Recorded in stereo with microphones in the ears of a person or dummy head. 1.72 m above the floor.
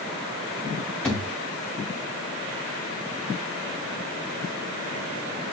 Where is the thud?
10° left (ahead or behind), 1.9 m.